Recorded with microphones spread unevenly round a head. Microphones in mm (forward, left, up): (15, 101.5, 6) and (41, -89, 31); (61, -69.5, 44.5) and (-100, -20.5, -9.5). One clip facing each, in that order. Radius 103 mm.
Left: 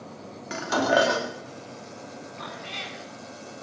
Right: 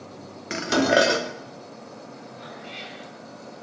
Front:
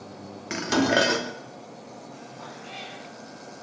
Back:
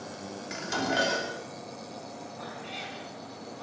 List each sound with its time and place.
0.5 s dishes clattering: 25° right, 2.5 m
2.4 s a cat meowing: 75° left, 4.5 m